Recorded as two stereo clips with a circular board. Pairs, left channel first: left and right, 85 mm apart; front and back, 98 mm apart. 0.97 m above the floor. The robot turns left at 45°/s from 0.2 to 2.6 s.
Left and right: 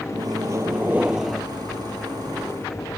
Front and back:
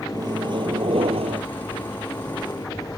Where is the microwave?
130° right; by 1.4 s 175° left.